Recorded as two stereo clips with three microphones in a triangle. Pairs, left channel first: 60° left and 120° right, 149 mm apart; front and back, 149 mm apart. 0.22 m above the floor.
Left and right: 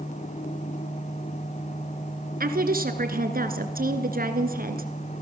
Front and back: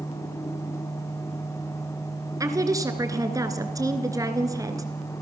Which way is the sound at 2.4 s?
110° right.